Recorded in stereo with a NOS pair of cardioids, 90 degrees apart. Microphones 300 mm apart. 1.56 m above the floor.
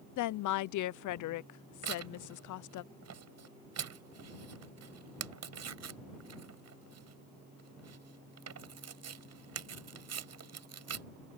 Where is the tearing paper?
50° right.